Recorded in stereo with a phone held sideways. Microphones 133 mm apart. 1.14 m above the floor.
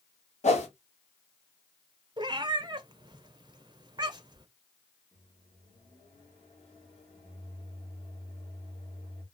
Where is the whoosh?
60° left (ahead or behind), 1.5 m.